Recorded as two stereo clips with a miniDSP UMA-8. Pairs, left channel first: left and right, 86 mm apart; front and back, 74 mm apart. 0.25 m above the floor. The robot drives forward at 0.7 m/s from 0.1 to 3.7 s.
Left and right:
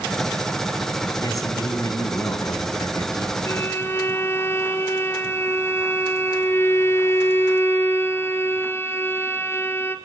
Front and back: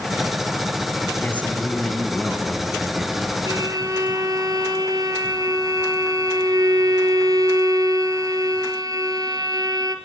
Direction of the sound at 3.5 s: 145° left.